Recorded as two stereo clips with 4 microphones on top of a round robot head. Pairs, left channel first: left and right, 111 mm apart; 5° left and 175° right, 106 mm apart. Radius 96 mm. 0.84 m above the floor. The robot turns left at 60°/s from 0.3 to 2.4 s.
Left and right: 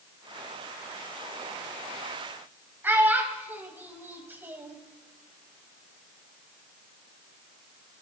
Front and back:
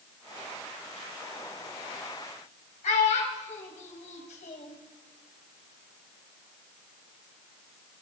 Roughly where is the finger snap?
No finger snap in this recording.